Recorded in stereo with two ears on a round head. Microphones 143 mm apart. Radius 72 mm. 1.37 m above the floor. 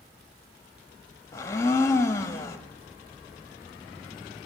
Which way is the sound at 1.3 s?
20° left (ahead or behind).